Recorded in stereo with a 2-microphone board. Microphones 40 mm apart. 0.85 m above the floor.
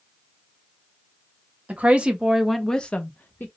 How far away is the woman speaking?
About 1.2 m.